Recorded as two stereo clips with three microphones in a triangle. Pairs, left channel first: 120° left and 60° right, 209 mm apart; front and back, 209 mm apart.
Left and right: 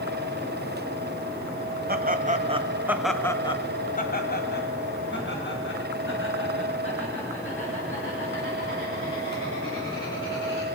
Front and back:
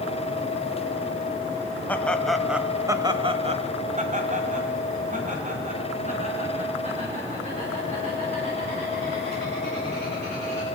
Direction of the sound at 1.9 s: 80° right.